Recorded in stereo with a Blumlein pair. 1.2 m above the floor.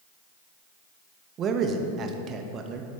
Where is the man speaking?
30° right, 0.8 m.